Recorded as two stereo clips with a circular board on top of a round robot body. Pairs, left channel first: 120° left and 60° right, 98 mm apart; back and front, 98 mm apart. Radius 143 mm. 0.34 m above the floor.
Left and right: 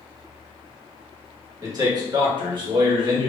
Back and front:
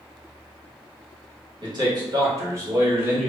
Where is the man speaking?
20° right, 1.4 m; by 3.3 s 70° right, 1.6 m.